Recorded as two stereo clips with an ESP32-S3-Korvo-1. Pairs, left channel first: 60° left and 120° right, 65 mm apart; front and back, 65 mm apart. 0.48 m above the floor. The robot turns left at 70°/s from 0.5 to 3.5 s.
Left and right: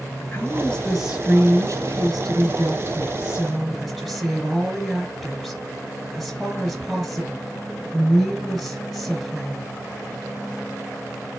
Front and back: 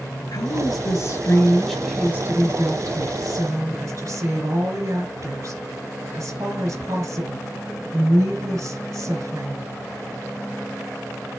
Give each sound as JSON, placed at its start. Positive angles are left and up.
{"t": 0.3, "sound": "a woman speaking", "azimuth_deg": 0, "distance_m": 3.0}